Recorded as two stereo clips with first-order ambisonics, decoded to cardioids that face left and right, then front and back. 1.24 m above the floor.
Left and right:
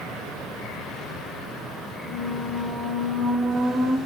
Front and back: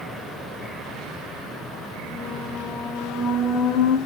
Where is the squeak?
35° right, 0.6 m.